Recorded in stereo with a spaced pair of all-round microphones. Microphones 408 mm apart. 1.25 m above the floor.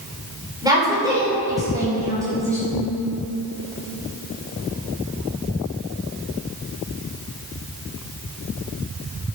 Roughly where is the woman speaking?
Centre.